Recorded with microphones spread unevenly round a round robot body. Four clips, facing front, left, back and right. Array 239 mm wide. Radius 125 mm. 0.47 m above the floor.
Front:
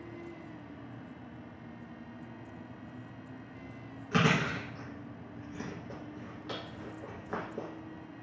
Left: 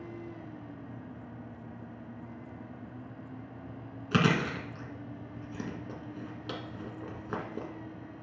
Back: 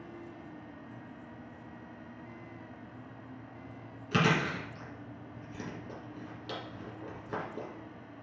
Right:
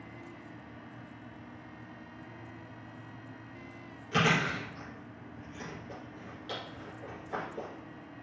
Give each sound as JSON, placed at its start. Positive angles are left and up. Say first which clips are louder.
{"t": 4.1, "sound": "chewing", "louder": "left 1 dB, even", "azimuth_deg": 110, "distance_m": 1.6}